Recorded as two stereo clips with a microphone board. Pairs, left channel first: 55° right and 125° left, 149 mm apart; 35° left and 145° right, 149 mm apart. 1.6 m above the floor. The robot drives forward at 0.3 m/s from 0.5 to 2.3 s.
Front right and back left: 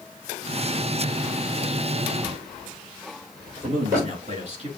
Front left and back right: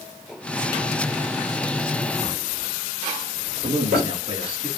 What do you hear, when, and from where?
2.2 s a drawer: 170° right, 3.5 m
3.6 s a man speaking: 170° left, 3.5 m